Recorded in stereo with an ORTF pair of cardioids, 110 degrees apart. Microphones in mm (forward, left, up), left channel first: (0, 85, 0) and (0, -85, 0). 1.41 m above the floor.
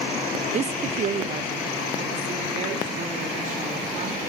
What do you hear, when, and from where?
0.5 s a woman speaking: 40° right, 0.7 m; by 4.3 s 50° right, 6.5 m